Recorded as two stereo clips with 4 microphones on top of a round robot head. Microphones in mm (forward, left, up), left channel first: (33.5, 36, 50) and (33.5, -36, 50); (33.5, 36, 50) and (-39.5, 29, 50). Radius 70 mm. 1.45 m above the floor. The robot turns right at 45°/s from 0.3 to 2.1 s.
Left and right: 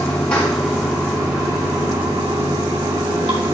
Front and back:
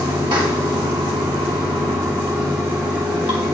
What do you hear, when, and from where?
0.0 s running water: 170° left, 1.7 m; by 3.5 s 110° right, 1.7 m